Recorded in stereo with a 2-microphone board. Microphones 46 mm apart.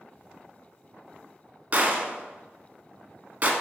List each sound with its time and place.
1.7 s a gunshot: 35° right (ahead or behind), 0.6 m